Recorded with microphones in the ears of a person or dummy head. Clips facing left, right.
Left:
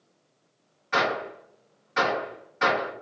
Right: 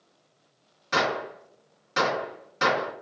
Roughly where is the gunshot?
Right.